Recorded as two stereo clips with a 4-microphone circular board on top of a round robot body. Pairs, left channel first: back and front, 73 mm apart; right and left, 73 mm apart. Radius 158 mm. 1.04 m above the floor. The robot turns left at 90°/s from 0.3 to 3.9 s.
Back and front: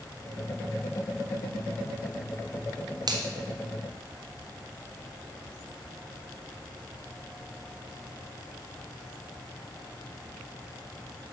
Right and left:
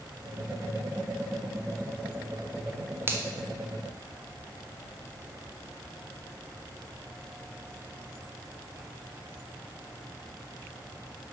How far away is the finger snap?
About 1.1 m.